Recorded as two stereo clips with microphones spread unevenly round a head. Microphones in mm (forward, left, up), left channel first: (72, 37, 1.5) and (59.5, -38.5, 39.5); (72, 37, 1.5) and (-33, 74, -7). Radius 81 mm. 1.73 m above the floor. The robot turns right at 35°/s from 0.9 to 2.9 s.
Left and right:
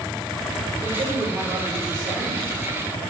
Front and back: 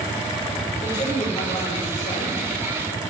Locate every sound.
0.8 s a man speaking: 100° right, 6 m; by 2.4 s 45° right, 6 m